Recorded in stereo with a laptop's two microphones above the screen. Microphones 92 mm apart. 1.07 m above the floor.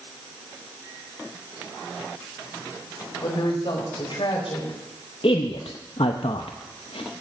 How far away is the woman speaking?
About 5 m.